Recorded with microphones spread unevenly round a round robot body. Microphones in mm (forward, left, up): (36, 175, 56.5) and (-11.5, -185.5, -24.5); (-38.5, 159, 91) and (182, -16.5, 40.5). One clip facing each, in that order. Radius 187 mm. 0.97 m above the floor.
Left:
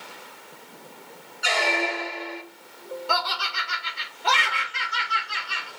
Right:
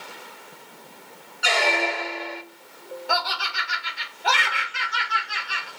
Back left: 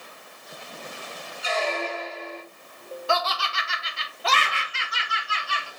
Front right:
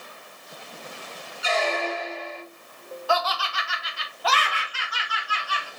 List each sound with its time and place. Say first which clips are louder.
1.4 s a squeak: right 2 dB, front right 2 dB; 70° right, 0.5 m
3.1 s laughter: right 1 dB, front right 2 dB; 170° right, 0.6 m